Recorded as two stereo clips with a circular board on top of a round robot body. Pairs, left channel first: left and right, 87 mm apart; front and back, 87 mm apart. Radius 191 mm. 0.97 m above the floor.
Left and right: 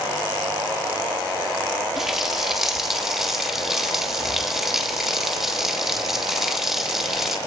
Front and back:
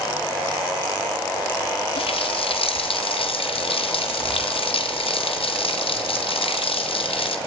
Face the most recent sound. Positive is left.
turn(degrees=-5)